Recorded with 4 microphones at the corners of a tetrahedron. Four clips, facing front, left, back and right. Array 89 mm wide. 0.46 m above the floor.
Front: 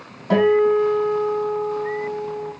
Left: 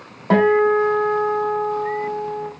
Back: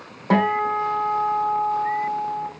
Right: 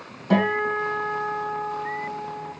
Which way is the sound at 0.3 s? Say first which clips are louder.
Left 7 dB, front 4 dB; 120° left.